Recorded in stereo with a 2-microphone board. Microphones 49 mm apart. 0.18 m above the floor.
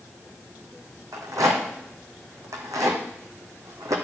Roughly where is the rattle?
Right.